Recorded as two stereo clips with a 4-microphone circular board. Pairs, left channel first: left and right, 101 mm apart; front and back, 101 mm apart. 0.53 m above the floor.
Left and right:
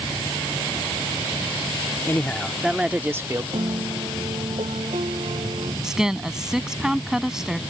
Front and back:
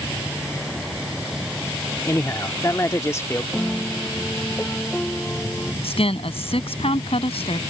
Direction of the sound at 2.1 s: 35° left.